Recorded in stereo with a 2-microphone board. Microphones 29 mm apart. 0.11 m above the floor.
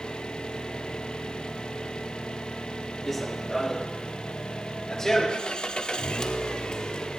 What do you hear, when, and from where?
0.0 s an engine running: 35° left (ahead or behind), 2.0 m
3.1 s running footsteps: 10° left (ahead or behind), 2.5 m; by 7.0 s 30° left (ahead or behind), 5.5 m